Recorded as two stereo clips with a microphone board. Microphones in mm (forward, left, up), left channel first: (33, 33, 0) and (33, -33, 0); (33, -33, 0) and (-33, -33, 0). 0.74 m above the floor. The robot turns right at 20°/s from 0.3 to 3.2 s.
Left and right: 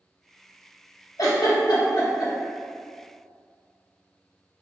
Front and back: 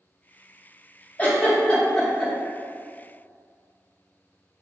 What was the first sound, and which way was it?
A giggle, 65° left.